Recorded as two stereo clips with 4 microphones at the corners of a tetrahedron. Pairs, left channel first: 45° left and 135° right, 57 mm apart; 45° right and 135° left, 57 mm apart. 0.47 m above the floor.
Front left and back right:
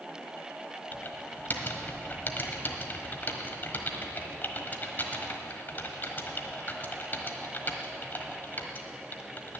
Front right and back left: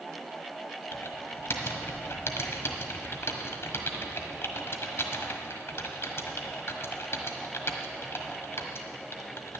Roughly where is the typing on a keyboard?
Ahead.